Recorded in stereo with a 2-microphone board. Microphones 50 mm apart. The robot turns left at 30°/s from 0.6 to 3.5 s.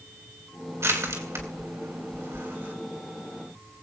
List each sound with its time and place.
0.8 s crushing: 70° right (ahead or behind), 3.5 m; by 2.7 s 35° right (ahead or behind), 3.5 m